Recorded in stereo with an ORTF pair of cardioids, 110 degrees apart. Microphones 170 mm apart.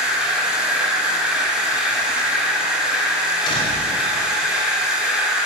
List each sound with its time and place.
0.0 s a machine running: 5° right, 2.5 m
3.5 s a door slam: 30° left, 3.5 m